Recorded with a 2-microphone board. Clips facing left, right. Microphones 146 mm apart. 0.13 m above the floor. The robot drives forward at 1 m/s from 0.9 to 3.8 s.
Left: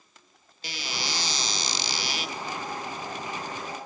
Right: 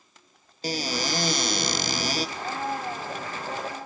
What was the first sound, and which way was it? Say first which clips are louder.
A cupboard door: right 8 dB; 40° right (ahead or behind).